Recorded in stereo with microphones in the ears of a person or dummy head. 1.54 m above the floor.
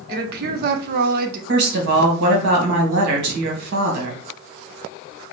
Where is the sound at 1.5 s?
60° right (ahead or behind), 1.4 m.